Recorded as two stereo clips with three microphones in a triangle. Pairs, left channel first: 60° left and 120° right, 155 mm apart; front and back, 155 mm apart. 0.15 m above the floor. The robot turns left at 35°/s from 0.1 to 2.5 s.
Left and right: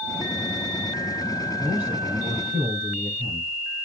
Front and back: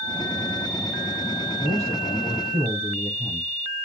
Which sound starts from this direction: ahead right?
A man speaking, at 1.6 s.